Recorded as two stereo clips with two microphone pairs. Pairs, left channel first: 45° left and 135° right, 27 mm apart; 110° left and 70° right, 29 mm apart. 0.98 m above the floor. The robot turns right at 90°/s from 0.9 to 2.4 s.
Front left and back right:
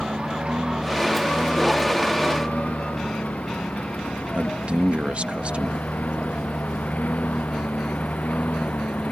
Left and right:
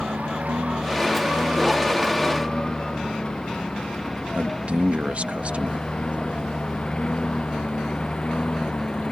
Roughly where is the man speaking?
Right.